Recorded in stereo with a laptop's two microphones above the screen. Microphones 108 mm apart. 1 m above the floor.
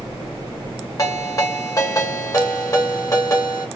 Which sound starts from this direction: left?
A ringtone, at 1.0 s.